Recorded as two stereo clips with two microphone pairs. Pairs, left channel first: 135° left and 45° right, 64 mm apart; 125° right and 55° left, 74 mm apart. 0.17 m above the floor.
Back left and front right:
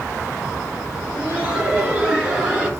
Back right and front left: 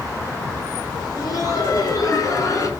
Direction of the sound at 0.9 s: 110° right.